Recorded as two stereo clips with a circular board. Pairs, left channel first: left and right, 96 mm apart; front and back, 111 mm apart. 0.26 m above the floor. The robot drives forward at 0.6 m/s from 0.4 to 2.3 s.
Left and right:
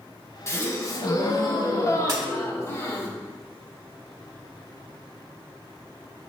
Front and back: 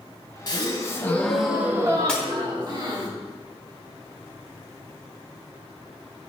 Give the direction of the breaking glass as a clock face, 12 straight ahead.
3 o'clock.